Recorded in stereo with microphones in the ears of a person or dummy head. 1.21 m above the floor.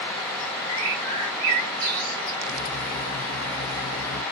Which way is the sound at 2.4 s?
60° left (ahead or behind).